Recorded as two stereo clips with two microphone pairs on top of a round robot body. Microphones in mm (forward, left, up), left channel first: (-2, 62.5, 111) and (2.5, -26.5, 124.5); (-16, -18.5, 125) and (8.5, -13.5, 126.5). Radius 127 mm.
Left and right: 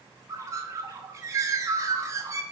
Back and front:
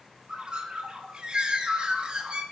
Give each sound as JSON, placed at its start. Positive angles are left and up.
{"t": 0.3, "sound": "a bird", "azimuth_deg": -30, "distance_m": 0.6}